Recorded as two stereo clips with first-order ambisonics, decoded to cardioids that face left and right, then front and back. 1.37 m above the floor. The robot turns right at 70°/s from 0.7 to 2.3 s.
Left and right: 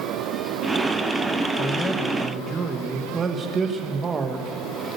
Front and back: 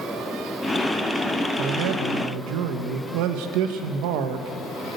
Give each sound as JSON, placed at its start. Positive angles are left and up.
{"t": 1.6, "sound": "a man speaking", "azimuth_deg": 150, "distance_m": 1.1}